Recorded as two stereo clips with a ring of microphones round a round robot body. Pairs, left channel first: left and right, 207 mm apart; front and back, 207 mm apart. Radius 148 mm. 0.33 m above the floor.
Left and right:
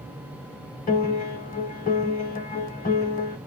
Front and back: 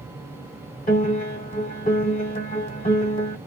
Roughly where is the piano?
Ahead left.